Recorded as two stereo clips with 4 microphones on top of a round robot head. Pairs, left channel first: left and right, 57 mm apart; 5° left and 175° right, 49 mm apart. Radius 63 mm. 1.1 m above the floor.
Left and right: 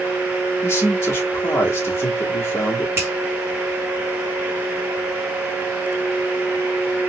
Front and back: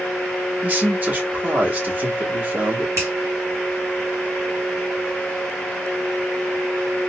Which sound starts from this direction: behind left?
A man speaking, at 0.6 s.